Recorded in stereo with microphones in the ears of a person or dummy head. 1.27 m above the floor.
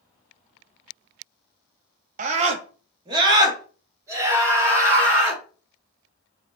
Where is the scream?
45° right (ahead or behind), 0.7 m; by 5.4 s 15° right (ahead or behind), 2 m.